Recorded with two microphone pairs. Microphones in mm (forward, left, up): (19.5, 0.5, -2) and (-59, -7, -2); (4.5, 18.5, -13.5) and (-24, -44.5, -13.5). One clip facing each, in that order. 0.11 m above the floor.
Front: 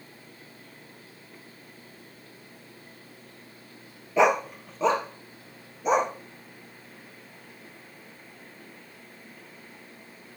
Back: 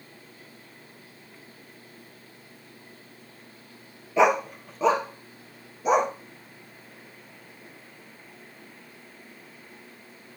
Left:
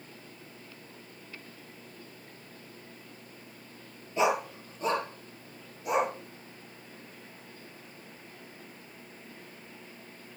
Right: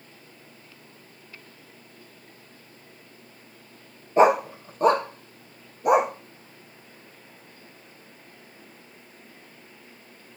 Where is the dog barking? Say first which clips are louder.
Back 1 dB, right 9 dB; 85° right, 0.7 m.